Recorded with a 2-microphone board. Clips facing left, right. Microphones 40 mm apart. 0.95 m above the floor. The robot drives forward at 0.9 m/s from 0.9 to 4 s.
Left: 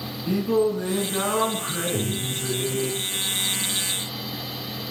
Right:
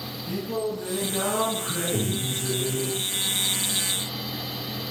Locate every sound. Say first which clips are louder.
0.3 s singing: left 8 dB; 55° left (ahead or behind), 3.5 m; by 2.9 s 80° left, 3 m
1.9 s breathing: even; 80° right, 5.5 m; by 2.5 s 75° right (ahead or behind), 6 m